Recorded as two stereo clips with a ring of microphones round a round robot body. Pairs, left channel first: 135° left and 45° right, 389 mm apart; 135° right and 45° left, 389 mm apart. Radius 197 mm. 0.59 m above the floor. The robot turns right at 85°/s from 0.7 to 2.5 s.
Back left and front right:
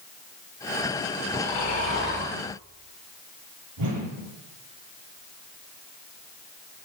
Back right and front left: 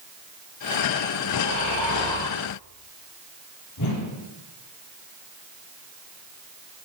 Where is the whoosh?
90° right, 3 m.